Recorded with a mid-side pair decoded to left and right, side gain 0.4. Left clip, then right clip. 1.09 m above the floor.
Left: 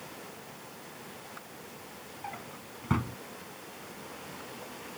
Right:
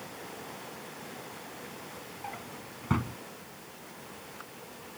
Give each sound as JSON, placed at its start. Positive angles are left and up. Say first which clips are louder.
{"t": 2.2, "sound": "a drawer", "louder": "left 1 dB", "azimuth_deg": 0}